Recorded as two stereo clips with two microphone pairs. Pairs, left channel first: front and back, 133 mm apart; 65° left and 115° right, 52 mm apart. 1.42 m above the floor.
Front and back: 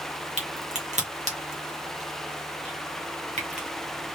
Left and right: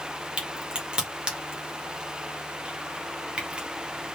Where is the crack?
175° left, 1.5 m.